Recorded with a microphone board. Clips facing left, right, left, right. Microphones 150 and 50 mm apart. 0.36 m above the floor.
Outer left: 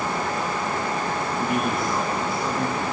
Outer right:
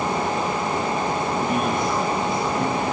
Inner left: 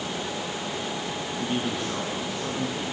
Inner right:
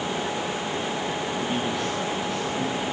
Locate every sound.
1.4 s a man speaking: 5° left (ahead or behind), 4.5 m